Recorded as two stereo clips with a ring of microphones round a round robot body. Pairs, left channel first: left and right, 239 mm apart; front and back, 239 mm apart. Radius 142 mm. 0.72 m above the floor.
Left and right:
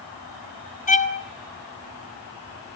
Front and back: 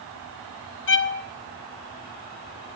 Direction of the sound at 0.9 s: 35° left.